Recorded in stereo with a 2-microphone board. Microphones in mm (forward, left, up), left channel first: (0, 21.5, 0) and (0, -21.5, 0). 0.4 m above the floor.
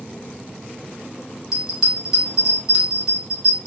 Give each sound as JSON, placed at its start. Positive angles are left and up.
{"t": 1.5, "sound": "a bell", "side_deg": -15, "distance_m": 1.2}